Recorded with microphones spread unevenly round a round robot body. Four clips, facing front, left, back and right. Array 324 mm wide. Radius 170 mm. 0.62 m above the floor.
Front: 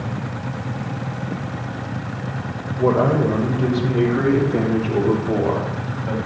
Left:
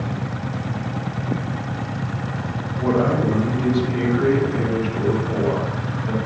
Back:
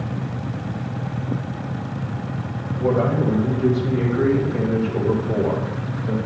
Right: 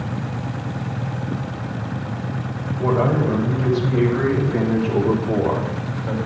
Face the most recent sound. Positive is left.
turn(degrees=-40)